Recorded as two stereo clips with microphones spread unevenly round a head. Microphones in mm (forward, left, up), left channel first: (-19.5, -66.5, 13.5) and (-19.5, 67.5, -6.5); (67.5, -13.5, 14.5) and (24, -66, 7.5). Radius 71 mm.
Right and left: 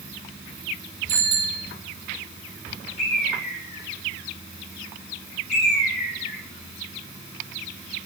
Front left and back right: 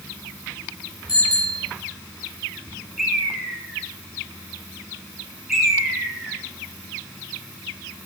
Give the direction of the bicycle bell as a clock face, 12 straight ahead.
11 o'clock.